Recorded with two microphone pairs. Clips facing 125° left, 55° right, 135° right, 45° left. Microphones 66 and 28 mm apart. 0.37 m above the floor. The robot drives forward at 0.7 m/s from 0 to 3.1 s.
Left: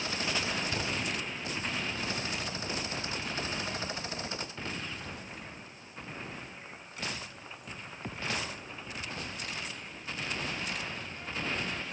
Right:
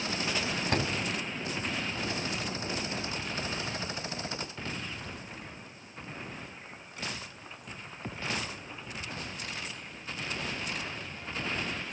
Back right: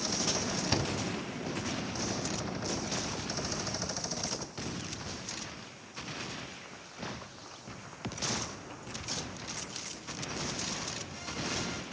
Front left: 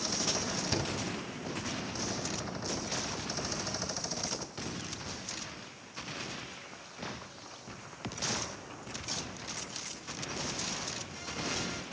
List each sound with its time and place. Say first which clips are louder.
0.7 s a door slam: right 4 dB, back right 3 dB; 75° right, 2.5 m; by 0.9 s 80° right, 2.5 m